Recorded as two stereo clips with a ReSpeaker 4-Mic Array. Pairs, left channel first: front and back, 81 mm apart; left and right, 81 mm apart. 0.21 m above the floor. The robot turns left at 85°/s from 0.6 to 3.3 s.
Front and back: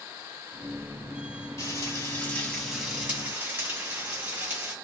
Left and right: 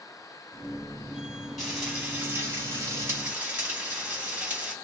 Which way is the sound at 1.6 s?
5° left.